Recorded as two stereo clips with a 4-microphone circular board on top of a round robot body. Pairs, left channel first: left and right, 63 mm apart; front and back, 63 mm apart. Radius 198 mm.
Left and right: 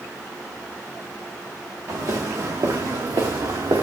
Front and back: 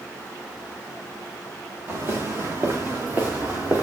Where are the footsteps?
120° right, 5 m; by 3.8 s 105° right, 4 m.